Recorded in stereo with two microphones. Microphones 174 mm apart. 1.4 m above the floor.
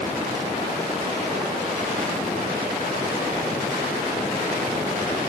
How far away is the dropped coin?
No dropped coin in this recording.